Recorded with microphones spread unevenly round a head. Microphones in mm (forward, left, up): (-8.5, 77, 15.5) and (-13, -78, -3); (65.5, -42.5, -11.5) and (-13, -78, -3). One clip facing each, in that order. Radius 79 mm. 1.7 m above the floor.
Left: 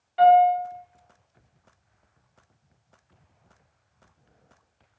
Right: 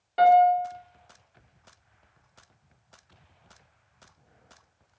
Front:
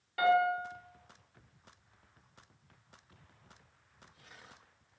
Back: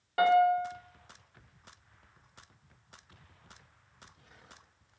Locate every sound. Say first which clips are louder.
0.2 s a piano: left 2 dB, back 4 dB; 125° right, 0.8 m